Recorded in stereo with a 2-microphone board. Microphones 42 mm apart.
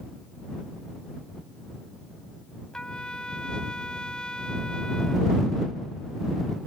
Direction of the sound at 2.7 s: 15° left (ahead or behind).